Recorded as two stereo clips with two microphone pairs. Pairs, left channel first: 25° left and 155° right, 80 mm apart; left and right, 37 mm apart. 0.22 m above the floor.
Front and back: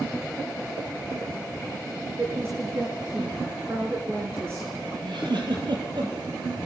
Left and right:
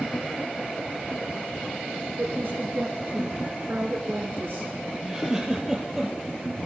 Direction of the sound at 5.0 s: 170° right.